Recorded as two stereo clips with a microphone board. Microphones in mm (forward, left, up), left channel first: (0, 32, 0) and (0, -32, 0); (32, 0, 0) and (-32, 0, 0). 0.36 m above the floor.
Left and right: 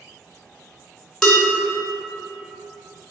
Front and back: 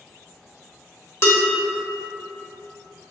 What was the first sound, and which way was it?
Dishes clattering, 10° left.